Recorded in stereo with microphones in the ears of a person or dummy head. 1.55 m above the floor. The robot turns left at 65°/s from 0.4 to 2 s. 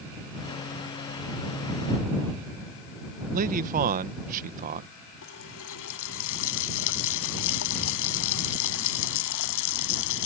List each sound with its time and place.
3.3 s a man speaking: 45° right (ahead or behind)
5.2 s a running tap: 65° left (ahead or behind)